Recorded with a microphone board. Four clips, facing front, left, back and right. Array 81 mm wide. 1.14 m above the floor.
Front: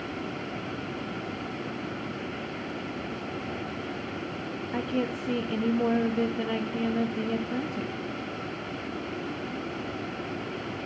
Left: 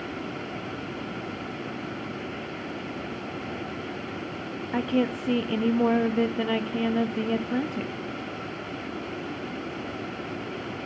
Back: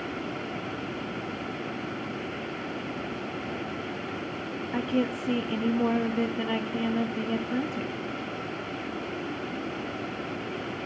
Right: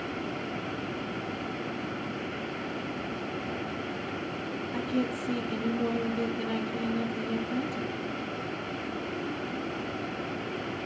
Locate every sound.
4.7 s a woman speaking: 95° left, 0.7 m